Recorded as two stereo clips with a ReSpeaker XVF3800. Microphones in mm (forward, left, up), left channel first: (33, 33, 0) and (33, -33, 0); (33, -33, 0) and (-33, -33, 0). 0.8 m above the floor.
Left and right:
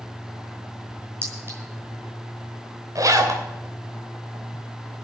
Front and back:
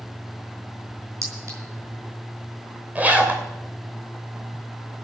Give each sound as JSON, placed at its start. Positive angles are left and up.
{"t": 1.2, "sound": "a clink", "azimuth_deg": -140, "distance_m": 5.5}
{"t": 3.0, "sound": "a zipper", "azimuth_deg": -115, "distance_m": 2.5}